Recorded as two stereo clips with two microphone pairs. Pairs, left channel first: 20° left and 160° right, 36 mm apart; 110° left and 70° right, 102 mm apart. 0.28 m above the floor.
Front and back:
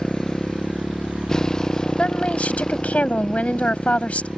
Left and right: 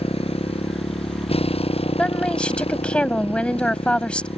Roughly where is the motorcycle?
Left.